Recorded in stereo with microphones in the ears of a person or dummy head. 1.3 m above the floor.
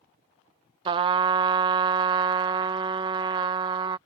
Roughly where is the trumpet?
Right.